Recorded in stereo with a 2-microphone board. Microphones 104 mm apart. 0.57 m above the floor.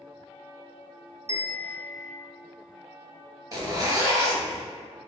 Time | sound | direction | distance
1.3 | a bell | 75° right (ahead or behind) | 0.6 m
3.5 | a zipper | 35° right (ahead or behind) | 0.7 m